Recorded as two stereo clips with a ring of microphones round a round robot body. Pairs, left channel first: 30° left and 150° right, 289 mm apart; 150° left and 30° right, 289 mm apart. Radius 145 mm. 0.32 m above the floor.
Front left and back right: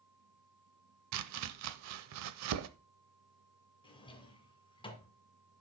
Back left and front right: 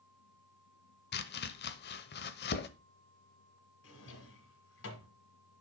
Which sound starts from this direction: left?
A drawer, at 3.8 s.